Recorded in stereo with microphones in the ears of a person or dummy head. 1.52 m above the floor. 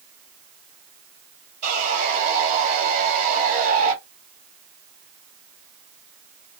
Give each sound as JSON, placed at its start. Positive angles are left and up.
{"t": 1.6, "sound": "sawing", "side_deg": -40, "distance_m": 1.8}